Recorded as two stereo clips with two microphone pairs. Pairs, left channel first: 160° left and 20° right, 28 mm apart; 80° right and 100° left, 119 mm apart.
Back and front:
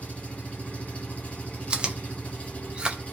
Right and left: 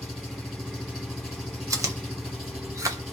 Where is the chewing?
35° left, 0.6 m.